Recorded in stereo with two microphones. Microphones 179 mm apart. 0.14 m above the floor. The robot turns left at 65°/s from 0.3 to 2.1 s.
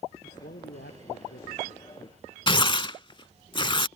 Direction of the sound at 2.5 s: 30° left (ahead or behind).